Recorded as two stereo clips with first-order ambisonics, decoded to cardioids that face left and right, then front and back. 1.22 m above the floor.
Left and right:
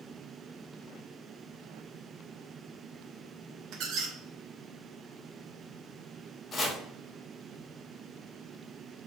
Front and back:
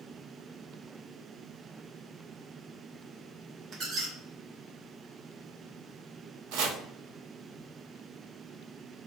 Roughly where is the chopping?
Behind.